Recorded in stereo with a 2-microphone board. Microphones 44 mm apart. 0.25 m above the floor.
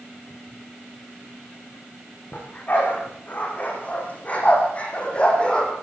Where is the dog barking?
40° left (ahead or behind), 8.5 m; by 5.7 s 20° left (ahead or behind), 5 m.